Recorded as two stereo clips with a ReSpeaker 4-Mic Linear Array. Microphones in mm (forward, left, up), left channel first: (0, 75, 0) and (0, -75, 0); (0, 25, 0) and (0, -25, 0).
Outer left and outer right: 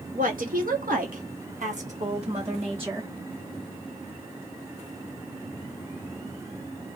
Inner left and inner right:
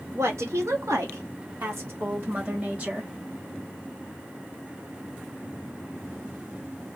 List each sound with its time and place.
0.1 s a woman speaking: 70° right (ahead or behind), 1.3 m; by 3.1 s 35° right (ahead or behind), 1.6 m